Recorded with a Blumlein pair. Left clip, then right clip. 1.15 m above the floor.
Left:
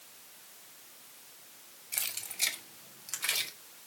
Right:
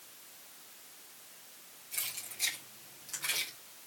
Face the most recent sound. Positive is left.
turn(degrees=70)